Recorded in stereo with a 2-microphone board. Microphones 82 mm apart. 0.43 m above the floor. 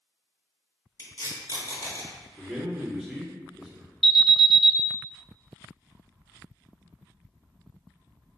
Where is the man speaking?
10° right (ahead or behind), 0.7 m.